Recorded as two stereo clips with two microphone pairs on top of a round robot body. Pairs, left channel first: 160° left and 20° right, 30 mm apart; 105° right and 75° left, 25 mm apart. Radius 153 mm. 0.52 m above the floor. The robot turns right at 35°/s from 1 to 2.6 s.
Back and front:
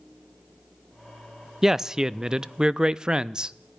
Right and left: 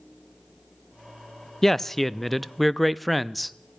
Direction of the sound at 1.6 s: 85° right.